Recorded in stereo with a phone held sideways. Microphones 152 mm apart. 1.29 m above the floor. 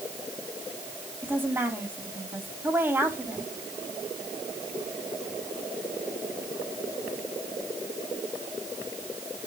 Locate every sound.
1.2 s a woman speaking: 15° right (ahead or behind), 4 m